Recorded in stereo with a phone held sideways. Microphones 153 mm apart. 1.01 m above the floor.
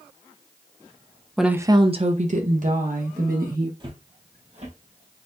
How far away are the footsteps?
About 1.2 m.